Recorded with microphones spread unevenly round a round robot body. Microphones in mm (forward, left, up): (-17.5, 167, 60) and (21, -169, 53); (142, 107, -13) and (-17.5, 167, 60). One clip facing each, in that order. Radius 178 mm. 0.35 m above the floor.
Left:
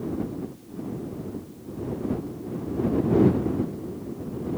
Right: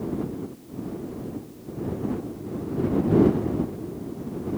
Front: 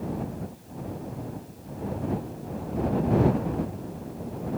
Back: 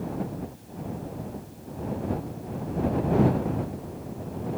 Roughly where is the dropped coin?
I don't hear a dropped coin.